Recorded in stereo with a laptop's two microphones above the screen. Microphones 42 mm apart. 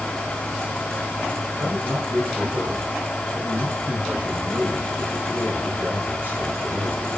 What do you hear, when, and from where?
0.0 s a fan: 15° left (ahead or behind), 2.5 m
1.6 s a man speaking: 45° right (ahead or behind), 4 m